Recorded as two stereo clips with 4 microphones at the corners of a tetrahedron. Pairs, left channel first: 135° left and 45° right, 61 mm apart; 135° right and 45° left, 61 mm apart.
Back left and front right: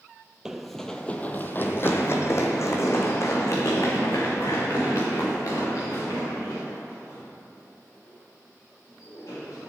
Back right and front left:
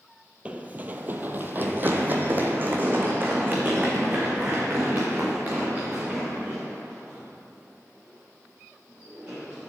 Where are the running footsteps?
20° left, 0.6 m; by 9.7 s 110° left, 5 m.